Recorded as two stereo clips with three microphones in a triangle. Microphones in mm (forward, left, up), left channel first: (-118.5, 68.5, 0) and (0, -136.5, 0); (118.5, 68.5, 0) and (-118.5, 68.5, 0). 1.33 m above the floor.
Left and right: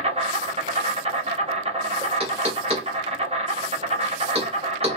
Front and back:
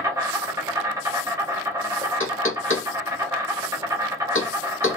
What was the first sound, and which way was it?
An insect, 110° right.